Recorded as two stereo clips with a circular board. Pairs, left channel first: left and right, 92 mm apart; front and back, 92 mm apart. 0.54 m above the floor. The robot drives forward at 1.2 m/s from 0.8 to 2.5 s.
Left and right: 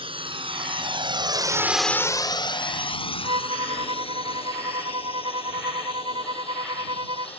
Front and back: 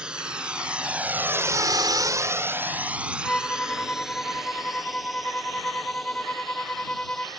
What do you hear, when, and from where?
0.0 s a drone: 100° right; by 7.4 s 90° left
3.2 s a violin: 75° right